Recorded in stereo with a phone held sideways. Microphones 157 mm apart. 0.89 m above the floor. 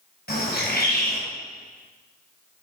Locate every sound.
0.3 s a bird: 85° left, 4 m